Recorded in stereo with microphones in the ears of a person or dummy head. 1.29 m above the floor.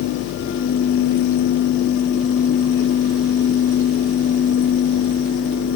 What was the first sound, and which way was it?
Only background noise.